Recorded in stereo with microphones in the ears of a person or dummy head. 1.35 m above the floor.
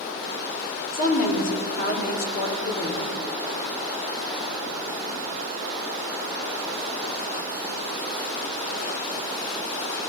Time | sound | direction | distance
0.9 | a woman speaking | 50° left (ahead or behind) | 3 m